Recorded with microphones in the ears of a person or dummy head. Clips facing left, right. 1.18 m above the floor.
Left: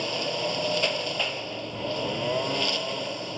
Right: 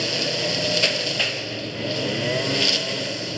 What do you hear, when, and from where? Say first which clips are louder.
0.0 s a lawn mower: right 3 dB; 25° right (ahead or behind)